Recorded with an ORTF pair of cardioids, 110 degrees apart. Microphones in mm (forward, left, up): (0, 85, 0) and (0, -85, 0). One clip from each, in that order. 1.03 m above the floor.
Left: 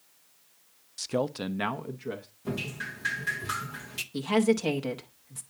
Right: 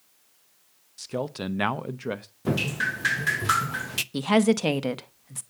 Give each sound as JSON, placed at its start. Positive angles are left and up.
{"t": 1.0, "sound": "a man speaking", "azimuth_deg": 20, "distance_m": 0.6}
{"t": 2.5, "sound": "dripping", "azimuth_deg": -45, "distance_m": 0.7}
{"t": 4.1, "sound": "a woman speaking", "azimuth_deg": -40, "distance_m": 1.0}